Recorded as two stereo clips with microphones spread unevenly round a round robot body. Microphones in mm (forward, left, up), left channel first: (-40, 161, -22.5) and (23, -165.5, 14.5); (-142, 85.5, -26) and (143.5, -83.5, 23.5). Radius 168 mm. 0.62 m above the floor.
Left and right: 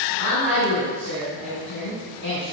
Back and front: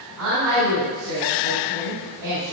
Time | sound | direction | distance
0.2 | a woman speaking | 15° right | 4 m